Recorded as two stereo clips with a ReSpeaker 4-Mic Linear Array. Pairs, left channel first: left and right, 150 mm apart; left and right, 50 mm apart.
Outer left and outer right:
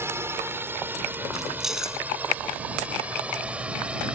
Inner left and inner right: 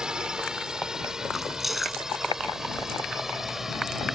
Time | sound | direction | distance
0.0 | a drone | 15° right (ahead or behind) | ?
1.3 | keys jangling | 5° right (ahead or behind) | ?